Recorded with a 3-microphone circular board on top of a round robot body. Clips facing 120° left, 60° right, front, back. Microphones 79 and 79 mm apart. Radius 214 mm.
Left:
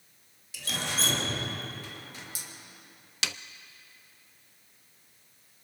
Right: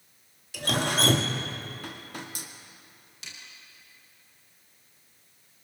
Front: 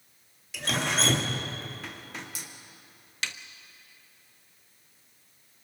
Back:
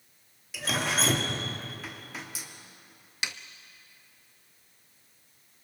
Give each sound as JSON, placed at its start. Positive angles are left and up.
{"t": 0.5, "sound": "dripping", "azimuth_deg": -90, "distance_m": 2.0}
{"t": 3.2, "sound": "a snare drum", "azimuth_deg": 105, "distance_m": 0.5}